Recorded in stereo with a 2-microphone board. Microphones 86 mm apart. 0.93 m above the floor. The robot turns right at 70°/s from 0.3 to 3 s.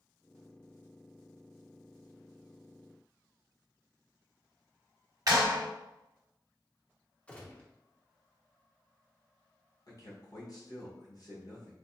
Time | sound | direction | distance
5.3 | a clap | 45° right (ahead or behind) | 0.8 m
7.3 | a gunshot | 15° left (ahead or behind) | 0.7 m
9.9 | a man speaking | 50° left (ahead or behind) | 1.2 m